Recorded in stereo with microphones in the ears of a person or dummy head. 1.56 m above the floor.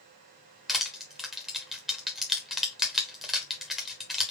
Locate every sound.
0.7 s crushing: centre (ahead or behind), 0.6 m